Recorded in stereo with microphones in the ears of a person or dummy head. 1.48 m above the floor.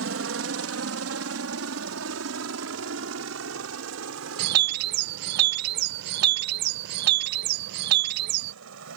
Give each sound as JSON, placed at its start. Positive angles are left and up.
{"t": 0.0, "sound": "a helicopter", "side_deg": -65}
{"t": 4.4, "sound": "a bird", "side_deg": -55}